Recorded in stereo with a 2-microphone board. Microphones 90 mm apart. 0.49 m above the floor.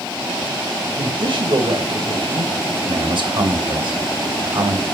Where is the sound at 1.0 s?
65° right (ahead or behind), 2 m.